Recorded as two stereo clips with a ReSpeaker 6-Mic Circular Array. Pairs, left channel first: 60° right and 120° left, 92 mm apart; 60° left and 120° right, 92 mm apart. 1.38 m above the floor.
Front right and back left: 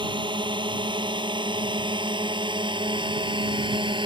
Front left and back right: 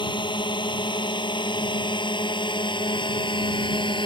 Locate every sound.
0.0 s a drone: 90° left